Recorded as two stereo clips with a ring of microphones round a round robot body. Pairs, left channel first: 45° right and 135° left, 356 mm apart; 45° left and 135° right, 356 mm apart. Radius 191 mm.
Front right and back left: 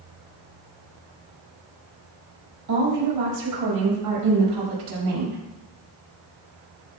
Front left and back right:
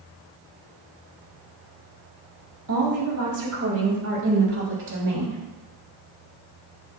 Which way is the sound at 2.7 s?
175° left.